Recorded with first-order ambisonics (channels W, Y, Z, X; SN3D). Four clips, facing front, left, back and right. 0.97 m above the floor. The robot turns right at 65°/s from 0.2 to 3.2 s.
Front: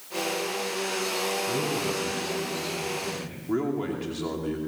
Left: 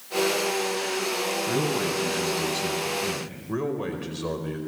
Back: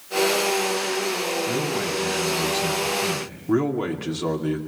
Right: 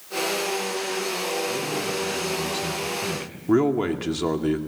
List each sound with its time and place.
1.5 s a man speaking: 140° left, 6.5 m; by 3.4 s 110° right, 6.5 m
3.5 s a man speaking: 110° right, 2.5 m